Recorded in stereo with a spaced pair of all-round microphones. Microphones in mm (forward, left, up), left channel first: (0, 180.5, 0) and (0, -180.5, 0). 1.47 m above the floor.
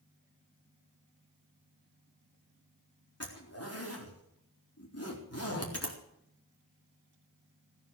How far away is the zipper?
About 4 m.